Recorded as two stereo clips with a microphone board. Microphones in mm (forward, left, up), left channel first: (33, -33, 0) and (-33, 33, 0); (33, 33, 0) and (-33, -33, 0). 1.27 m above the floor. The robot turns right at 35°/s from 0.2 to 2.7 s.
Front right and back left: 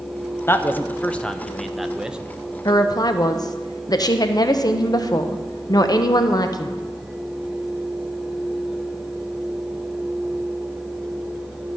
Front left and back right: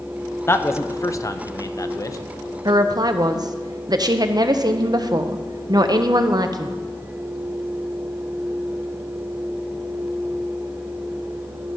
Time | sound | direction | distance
0.5 | a man speaking | straight ahead | 0.6 m
2.6 | a woman speaking | 90° right | 0.7 m